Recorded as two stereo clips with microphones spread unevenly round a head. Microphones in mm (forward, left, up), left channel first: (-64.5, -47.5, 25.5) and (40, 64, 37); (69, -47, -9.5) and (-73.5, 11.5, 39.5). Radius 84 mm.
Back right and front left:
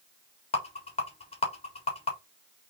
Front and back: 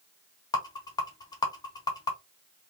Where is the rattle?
85° right, 1.8 m.